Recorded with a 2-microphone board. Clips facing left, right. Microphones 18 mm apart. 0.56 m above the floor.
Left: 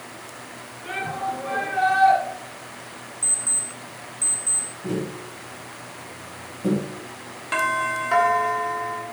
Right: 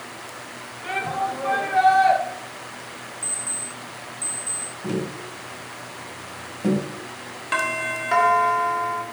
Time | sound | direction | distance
0.8 | a shout | 70° right (ahead or behind) | 2 m
3.2 | an alarm clock | 40° left (ahead or behind) | 1.7 m
4.8 | tapping | 45° right (ahead or behind) | 1.8 m
7.5 | a doorbell | 20° right (ahead or behind) | 1.1 m